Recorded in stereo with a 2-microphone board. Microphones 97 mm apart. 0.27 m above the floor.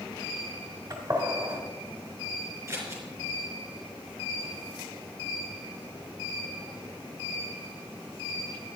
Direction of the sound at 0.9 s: 40° right (ahead or behind).